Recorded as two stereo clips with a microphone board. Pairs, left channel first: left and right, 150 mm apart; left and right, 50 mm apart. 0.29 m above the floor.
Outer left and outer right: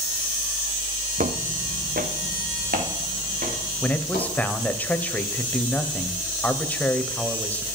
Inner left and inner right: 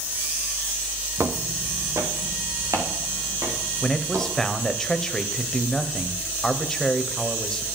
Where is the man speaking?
10° left (ahead or behind), 0.9 m.